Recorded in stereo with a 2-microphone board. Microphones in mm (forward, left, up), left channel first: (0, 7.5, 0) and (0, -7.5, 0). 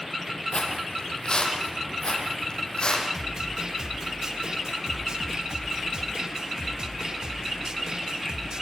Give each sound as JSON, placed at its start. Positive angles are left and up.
{"t": 0.5, "sound": "footsteps", "side_deg": 60, "distance_m": 4.0}
{"t": 3.1, "sound": "a snare drum", "side_deg": -55, "distance_m": 1.5}